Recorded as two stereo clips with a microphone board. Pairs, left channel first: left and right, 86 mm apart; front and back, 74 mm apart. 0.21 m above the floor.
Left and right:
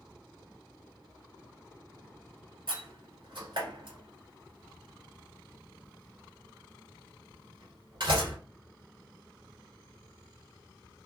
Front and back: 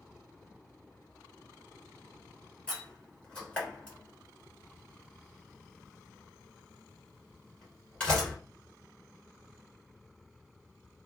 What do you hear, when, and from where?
2.7 s a door slam: 80° right, 1.6 m